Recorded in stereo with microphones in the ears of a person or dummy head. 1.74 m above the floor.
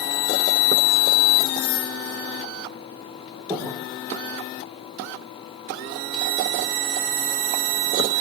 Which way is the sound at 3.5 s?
15° right (ahead or behind).